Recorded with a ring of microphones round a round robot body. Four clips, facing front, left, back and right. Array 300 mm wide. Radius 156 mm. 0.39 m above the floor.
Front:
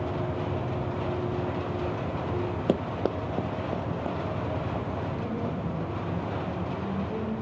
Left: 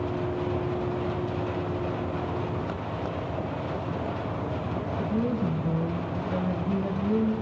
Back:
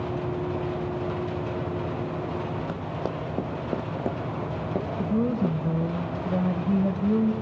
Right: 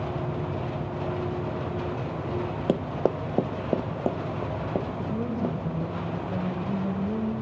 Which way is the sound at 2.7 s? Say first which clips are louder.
Right 6 dB, front 4 dB; 45° right.